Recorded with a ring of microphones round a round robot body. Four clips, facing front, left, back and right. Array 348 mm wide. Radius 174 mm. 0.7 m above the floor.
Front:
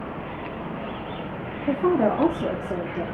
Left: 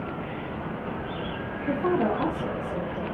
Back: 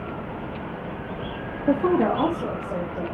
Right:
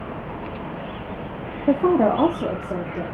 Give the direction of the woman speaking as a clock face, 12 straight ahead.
3 o'clock.